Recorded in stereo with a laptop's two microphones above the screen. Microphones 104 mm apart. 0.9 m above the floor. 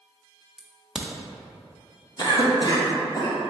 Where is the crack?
5° right (ahead or behind), 0.6 m.